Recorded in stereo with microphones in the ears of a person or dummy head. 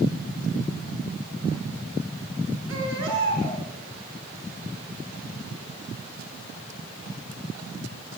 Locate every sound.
2.7 s a baby crying: 75° right (ahead or behind), 7 m